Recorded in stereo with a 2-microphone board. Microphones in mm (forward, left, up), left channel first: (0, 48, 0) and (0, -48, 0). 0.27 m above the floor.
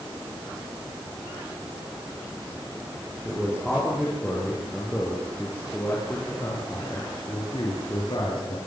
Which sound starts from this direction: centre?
A man speaking, at 3.2 s.